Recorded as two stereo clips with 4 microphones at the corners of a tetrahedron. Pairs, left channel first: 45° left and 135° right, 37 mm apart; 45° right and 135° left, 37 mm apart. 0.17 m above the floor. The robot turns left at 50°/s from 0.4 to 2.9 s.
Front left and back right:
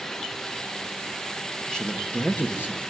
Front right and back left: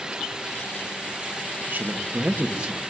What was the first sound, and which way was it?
A man speaking, 120° left.